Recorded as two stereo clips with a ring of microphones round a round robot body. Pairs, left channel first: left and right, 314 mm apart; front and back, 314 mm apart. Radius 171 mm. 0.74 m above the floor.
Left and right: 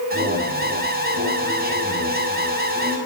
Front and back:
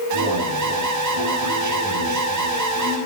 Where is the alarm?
150° right, 7.5 m.